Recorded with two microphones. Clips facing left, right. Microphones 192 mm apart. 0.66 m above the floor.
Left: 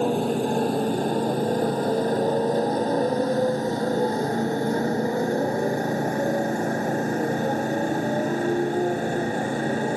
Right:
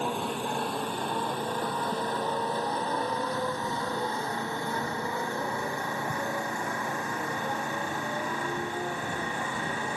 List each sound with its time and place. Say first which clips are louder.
0.0 s a motorcycle: left 9 dB; 40° left (ahead or behind)